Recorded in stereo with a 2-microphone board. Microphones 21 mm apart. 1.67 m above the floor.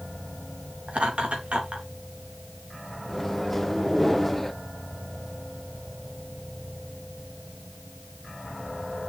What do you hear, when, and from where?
0.9 s laughter: 85° right, 3.5 m
3.1 s a microwave: 10° left (ahead or behind), 0.7 m